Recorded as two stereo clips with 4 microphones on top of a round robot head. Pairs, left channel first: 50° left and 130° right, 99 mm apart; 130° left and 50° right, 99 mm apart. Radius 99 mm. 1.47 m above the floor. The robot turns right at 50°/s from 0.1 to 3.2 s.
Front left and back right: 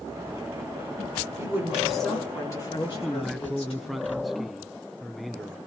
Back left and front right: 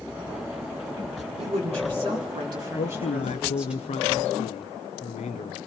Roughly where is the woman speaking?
Ahead right.